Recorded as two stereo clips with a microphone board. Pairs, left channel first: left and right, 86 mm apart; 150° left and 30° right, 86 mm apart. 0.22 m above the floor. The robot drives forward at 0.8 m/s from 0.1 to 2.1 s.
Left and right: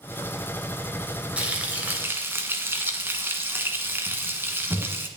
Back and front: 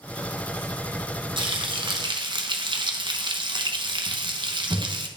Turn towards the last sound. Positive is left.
turn(degrees=-30)